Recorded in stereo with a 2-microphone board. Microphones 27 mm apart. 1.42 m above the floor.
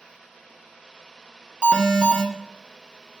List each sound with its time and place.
1.6 s an alarm: 45° right (ahead or behind), 2 m